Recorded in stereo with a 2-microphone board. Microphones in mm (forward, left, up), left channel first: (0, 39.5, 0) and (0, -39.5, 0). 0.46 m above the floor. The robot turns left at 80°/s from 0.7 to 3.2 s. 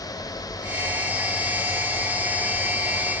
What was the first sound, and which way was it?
Only background noise.